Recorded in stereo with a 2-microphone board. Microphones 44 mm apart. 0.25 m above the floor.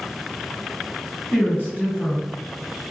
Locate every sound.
1.3 s a woman speaking: 45° left (ahead or behind), 1.9 m